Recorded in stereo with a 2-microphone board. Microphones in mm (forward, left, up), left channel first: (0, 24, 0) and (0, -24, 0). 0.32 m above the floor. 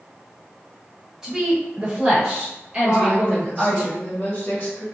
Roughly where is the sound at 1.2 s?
Centre.